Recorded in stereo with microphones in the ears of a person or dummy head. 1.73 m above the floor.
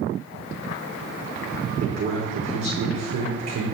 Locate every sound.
1.8 s a man speaking: 60° right (ahead or behind), 0.9 m